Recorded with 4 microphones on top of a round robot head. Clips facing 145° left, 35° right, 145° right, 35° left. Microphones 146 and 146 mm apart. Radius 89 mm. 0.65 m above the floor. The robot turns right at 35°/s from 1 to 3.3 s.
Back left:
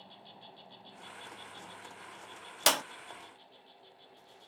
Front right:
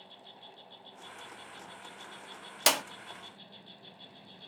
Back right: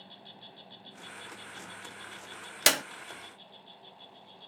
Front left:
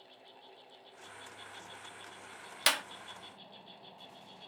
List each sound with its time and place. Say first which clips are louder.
0.0 s an insect: even, back right 4 dB; 130° right; by 4.5 s 50° right
2.7 s a clap: even, back right 5 dB; 120° right; by 2.8 s 115° right